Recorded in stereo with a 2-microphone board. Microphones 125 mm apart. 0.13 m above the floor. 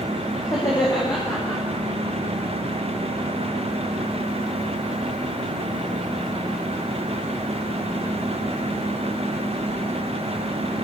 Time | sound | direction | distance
0.4 | laughter | 20° left (ahead or behind) | 9 m